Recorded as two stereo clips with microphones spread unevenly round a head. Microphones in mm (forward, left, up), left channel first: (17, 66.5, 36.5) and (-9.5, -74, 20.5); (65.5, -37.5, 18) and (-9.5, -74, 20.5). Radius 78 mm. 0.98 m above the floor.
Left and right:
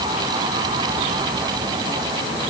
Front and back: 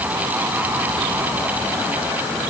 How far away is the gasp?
No gasp in this recording.